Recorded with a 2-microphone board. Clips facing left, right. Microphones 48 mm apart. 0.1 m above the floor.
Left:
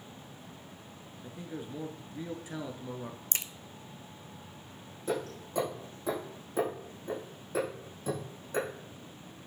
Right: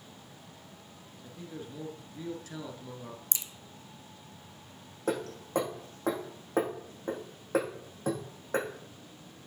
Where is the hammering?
55° right (ahead or behind), 4.5 m.